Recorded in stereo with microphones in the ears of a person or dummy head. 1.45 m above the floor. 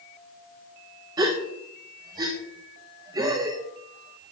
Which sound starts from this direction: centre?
A gasp, at 1.2 s.